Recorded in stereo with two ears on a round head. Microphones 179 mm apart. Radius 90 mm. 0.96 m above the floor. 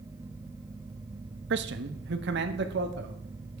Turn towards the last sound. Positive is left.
turn(degrees=-55)  # may be behind; listen again after turning